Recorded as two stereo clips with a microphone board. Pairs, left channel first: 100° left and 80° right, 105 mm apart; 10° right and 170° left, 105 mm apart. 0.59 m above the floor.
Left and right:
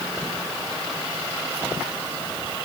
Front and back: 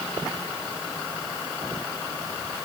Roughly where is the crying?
I don't hear crying.